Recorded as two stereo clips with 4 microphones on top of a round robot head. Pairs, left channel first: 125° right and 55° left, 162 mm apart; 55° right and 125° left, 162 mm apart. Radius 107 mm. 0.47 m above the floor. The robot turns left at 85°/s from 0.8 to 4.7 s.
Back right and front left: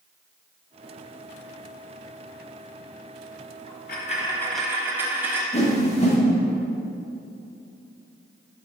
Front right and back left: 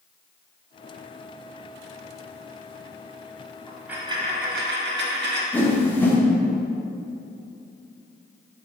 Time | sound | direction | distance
3.7 | a dropped coin | 135° right | 1.1 m
5.5 | a whoosh | 130° right | 1.5 m